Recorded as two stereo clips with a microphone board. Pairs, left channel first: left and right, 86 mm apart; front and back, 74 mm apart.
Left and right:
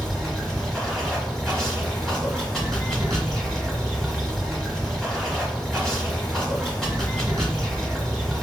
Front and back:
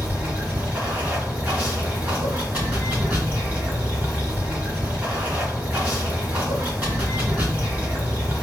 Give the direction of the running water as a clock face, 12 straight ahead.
7 o'clock.